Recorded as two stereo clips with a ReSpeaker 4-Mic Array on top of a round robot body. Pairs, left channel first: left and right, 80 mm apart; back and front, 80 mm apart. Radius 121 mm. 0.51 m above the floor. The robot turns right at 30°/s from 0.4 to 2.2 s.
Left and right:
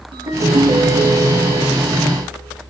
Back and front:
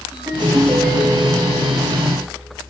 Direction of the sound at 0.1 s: 70° right.